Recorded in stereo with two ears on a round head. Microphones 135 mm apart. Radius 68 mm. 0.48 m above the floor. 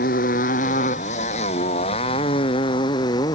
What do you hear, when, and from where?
0.0 s a motorcycle: 60° left (ahead or behind); by 3.3 s 25° left (ahead or behind)